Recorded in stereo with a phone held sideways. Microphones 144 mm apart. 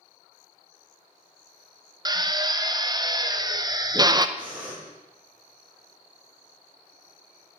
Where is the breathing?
10° right (ahead or behind), 4.5 m.